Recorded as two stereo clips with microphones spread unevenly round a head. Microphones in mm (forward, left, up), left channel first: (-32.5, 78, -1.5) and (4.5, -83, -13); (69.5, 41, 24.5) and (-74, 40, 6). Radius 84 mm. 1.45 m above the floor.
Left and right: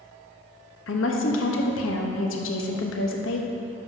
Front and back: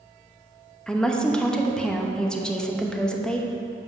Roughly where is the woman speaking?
Left.